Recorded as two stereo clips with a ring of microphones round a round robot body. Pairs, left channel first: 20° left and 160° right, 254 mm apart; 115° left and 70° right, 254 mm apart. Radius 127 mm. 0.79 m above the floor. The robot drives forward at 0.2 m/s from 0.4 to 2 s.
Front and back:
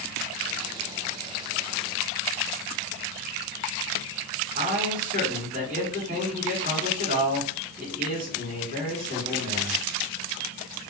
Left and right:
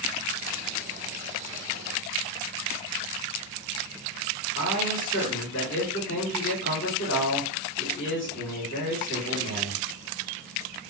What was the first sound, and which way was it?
A man speaking, 150° left.